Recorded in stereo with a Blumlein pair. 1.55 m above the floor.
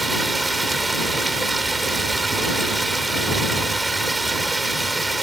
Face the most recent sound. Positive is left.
turn(degrees=-10)